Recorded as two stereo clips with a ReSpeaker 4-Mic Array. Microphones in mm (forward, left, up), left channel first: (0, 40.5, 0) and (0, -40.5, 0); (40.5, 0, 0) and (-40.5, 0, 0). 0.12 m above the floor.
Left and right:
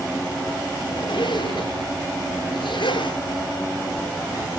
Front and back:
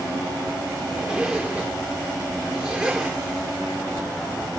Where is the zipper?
95° left, 6.5 m.